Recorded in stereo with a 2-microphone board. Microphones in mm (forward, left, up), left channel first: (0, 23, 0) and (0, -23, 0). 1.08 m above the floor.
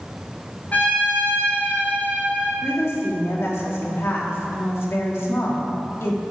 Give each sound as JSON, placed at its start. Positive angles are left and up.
{"t": 0.7, "sound": "a trumpet", "side_deg": 40, "distance_m": 3.0}
{"t": 2.6, "sound": "a woman speaking", "side_deg": 70, "distance_m": 2.0}